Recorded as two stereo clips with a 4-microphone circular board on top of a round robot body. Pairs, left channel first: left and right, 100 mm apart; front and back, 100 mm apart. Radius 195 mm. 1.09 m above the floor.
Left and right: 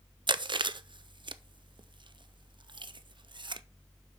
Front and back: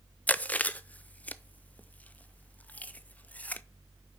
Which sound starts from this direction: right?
Chewing, at 0.3 s.